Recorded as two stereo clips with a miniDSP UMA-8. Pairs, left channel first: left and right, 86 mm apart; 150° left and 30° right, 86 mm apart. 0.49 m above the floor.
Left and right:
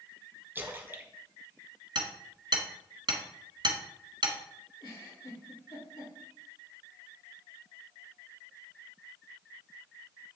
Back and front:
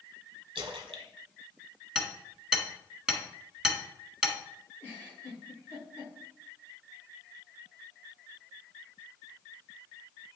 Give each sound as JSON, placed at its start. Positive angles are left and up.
{"t": 0.6, "sound": "a splash", "azimuth_deg": -25, "distance_m": 1.0}
{"t": 1.9, "sound": "hammering", "azimuth_deg": -110, "distance_m": 1.4}
{"t": 4.8, "sound": "a giggle", "azimuth_deg": 85, "distance_m": 4.0}